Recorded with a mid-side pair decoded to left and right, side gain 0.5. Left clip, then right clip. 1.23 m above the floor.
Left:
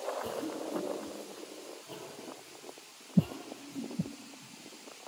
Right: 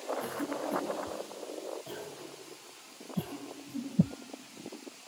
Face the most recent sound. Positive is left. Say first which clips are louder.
# right 1 dB
turn(degrees=-70)